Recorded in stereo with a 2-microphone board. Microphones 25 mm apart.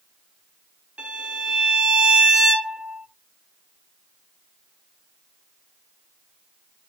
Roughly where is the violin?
Right.